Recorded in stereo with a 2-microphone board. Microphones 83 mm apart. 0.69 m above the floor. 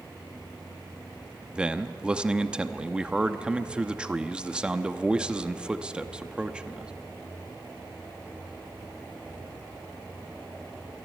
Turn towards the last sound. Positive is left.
turn(degrees=-10)  # may be behind; listen again after turning